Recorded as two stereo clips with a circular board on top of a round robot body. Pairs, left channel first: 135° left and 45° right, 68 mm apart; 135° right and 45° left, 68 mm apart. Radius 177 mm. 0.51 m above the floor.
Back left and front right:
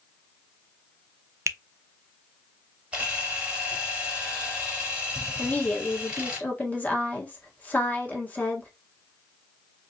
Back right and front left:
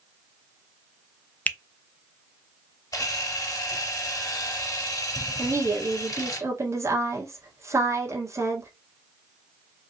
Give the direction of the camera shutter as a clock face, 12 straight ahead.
4 o'clock.